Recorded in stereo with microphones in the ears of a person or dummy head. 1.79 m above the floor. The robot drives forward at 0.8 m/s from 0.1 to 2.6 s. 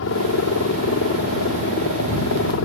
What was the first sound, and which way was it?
A helicopter, 75° left (ahead or behind).